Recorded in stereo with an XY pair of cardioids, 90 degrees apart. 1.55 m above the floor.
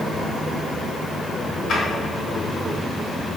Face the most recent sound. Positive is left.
turn(degrees=65)